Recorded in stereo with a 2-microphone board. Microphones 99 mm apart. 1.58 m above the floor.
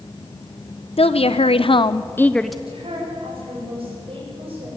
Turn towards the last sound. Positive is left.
turn(degrees=-65)  # may be behind; listen again after turning